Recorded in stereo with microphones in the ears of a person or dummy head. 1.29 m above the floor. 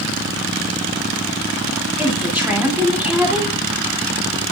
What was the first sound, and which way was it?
A woman speaking, 10° right (ahead or behind).